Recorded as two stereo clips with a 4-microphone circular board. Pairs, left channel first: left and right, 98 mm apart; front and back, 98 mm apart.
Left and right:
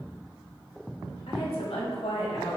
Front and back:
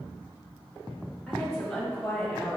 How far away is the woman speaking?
About 2.5 m.